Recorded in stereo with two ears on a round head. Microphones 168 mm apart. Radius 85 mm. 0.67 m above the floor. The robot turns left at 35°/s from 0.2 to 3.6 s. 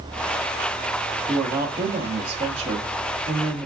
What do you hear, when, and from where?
1.3 s a woman speaking: 25° right, 0.7 m; by 3.7 s 110° right, 0.7 m